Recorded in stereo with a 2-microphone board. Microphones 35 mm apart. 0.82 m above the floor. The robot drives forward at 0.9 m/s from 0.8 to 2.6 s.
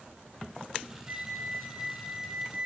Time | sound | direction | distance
1.1 | a flute | 55° right (ahead or behind) | 1.4 m